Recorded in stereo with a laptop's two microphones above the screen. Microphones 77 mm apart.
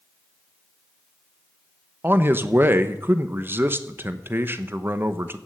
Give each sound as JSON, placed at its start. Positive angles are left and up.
{"t": 2.0, "sound": "a man speaking", "side_deg": -30, "distance_m": 0.9}